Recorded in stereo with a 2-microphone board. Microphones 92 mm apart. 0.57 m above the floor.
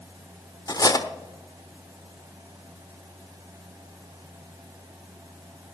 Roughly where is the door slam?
No door slam in this recording.